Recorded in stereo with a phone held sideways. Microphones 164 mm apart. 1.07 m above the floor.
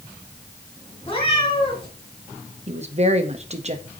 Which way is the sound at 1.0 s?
30° left (ahead or behind).